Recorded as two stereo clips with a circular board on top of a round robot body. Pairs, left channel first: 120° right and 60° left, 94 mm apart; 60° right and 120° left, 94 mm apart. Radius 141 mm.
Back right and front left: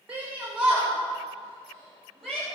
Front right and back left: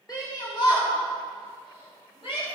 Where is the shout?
15° right, 3 m; by 2.5 s 40° right, 5 m.